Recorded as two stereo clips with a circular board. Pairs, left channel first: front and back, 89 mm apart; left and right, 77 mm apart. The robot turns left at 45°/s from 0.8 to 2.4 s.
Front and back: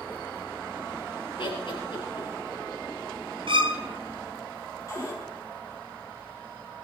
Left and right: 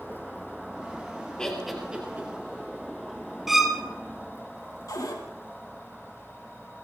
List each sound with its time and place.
1.4 s laughter: 10° left, 3.5 m; by 2.3 s 30° right, 3.5 m
3.5 s a violin: 175° right, 1.1 m
4.9 s a cupboard door: 50° left, 3 m